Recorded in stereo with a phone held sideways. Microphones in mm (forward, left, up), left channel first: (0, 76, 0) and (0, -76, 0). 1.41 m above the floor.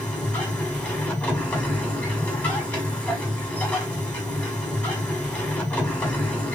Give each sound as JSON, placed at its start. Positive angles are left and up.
{"t": 0.0, "sound": "a machine running", "side_deg": 10, "distance_m": 1.8}